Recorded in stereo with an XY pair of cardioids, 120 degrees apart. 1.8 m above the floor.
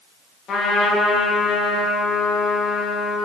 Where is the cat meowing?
I don't hear a cat meowing.